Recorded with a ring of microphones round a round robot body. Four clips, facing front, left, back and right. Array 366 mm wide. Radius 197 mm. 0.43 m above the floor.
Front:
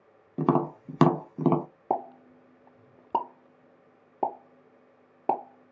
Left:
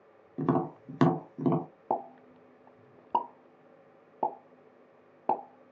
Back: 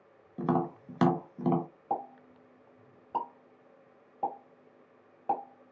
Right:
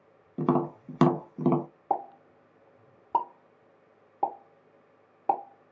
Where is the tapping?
Straight ahead, 1.2 m.